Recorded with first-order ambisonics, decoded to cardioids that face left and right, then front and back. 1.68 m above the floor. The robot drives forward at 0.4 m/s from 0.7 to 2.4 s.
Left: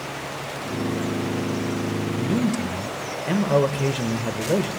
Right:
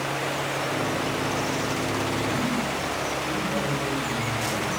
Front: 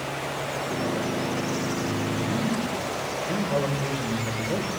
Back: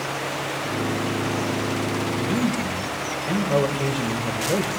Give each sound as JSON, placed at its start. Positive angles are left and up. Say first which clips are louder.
{"t": 2.2, "sound": "a man speaking", "louder": "even, back 3 dB", "azimuth_deg": 110, "distance_m": 1.3}